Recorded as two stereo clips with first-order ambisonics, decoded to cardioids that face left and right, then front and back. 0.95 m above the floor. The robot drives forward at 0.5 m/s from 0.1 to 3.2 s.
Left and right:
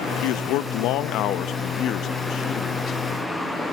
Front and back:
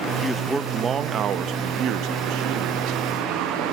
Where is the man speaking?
85° left, 0.7 m; by 3.0 s 155° left, 1.5 m.